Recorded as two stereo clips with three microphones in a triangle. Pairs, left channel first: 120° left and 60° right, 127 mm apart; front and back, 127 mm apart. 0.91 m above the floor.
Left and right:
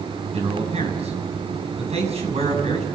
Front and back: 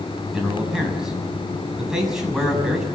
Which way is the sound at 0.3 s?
95° right.